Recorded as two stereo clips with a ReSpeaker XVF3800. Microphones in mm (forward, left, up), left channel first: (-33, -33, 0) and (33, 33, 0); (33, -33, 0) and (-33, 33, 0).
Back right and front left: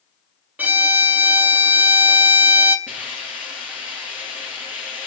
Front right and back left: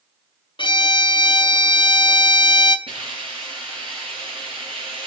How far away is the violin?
About 0.5 m.